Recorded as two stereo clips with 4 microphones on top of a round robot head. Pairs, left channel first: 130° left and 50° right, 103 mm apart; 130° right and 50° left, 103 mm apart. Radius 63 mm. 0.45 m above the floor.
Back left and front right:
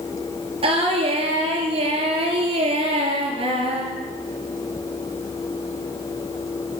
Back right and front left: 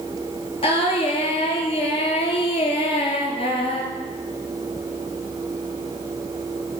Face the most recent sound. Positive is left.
turn(degrees=-90)